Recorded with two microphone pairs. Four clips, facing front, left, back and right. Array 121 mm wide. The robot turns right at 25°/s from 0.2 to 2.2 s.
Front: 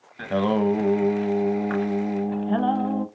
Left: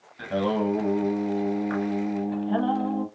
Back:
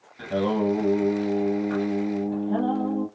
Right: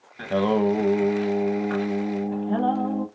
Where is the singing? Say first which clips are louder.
Right 4 dB, front 2 dB; 30° right, 0.8 m; by 3.1 s 20° left, 0.8 m.